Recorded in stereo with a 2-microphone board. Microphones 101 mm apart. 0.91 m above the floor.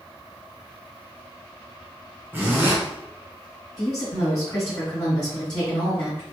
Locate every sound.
2.3 s a zipper: 20° right (ahead or behind), 1.1 m
3.8 s a woman speaking: 30° left (ahead or behind), 2.0 m